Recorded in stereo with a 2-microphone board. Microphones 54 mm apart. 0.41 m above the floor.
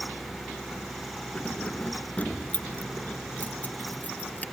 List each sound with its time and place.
1.4 s keys jangling: 25° left (ahead or behind); by 4.4 s 30° left (ahead or behind)